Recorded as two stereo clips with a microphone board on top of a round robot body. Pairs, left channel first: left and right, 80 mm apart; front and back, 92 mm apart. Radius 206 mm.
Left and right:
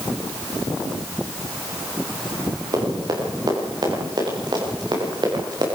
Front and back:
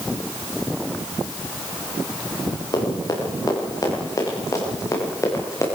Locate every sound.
2.7 s running footsteps: 55° right, 9.5 m; by 5.7 s 60° right, 8 m